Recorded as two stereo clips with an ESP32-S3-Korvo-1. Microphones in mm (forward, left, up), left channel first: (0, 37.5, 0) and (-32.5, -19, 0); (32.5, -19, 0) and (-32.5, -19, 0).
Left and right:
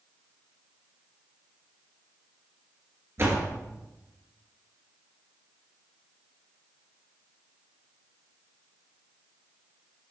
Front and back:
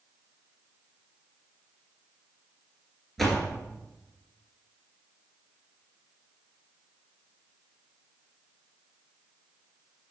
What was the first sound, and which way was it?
A door slam, 85° right.